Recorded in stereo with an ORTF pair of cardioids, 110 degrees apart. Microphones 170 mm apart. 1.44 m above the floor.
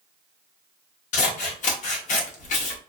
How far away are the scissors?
About 0.9 m.